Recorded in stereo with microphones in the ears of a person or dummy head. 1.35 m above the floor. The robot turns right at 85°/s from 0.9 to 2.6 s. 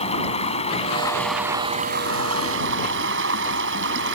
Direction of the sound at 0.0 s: 145° left.